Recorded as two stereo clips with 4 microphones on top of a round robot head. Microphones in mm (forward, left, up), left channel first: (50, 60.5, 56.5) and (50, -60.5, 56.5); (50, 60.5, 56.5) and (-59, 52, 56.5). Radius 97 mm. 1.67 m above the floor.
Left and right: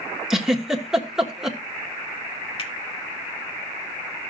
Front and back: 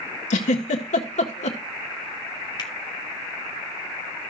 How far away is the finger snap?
About 2.5 m.